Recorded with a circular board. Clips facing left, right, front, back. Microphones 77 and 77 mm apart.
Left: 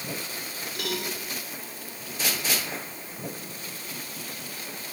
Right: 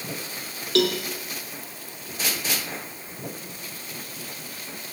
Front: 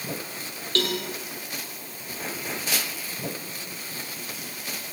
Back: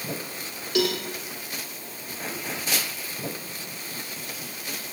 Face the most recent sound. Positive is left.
turn(degrees=-100)